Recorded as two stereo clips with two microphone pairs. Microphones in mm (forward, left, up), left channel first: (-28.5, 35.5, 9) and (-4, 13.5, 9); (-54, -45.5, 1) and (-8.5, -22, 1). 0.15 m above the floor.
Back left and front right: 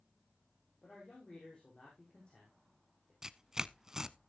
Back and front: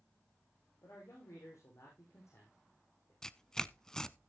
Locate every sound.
0.8 s a man speaking: 165° right, 6 m
3.2 s tearing paper: 95° right, 0.7 m